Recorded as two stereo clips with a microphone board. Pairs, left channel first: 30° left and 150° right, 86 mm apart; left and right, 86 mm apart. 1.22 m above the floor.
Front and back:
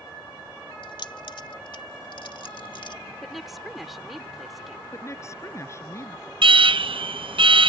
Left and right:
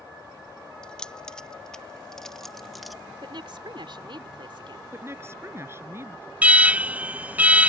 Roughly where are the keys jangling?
Ahead.